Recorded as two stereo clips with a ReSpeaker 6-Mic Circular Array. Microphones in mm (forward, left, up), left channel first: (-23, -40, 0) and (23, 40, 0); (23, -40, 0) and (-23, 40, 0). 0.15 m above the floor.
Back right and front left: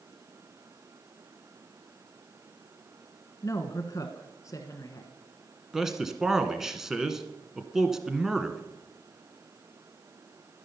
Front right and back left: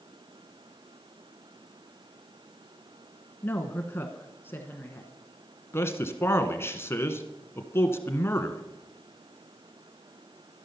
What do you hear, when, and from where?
3.4 s a woman speaking: 110° right, 1.3 m
5.7 s a man speaking: 20° right, 1.4 m